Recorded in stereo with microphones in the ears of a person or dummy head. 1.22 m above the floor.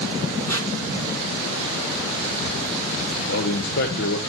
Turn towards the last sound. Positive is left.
turn(degrees=55)  # may be behind; listen again after turning